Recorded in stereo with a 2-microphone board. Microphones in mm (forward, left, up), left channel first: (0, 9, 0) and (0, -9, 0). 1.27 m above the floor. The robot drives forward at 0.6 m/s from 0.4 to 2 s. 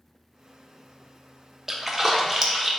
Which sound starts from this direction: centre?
A splash, at 1.7 s.